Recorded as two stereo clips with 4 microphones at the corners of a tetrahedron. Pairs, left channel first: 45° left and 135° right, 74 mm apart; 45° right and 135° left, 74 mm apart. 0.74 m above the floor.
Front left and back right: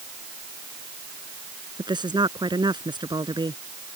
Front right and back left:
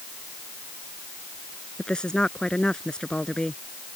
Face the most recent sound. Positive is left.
turn(degrees=-125)